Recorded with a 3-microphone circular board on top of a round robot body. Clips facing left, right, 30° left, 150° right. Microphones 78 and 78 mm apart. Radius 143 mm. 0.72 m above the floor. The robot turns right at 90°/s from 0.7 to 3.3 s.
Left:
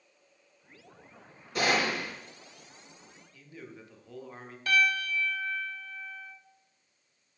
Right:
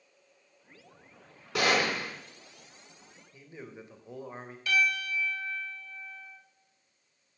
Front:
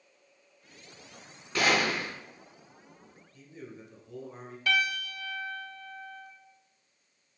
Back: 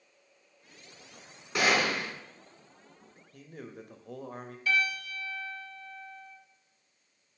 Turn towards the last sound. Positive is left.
turn(degrees=45)